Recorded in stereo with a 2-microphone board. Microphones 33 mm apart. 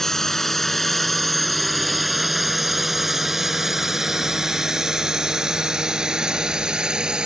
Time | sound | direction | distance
0.0 | a drone | 15° left (ahead or behind) | ?